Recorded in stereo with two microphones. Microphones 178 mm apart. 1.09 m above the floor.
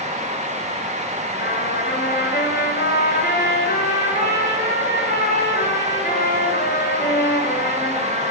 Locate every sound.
1.4 s a trumpet: 65° left (ahead or behind), 5 m